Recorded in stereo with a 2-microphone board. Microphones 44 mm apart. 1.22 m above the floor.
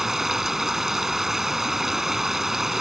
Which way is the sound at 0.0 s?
5° right (ahead or behind).